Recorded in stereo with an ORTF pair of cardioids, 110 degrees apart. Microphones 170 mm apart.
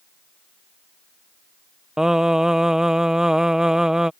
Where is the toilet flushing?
No toilet flushing in this recording.